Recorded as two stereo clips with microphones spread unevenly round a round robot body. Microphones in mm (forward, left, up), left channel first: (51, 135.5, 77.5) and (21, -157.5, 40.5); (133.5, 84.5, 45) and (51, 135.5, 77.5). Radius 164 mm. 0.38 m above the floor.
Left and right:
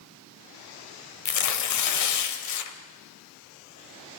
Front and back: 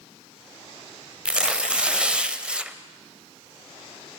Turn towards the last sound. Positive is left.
turn(degrees=60)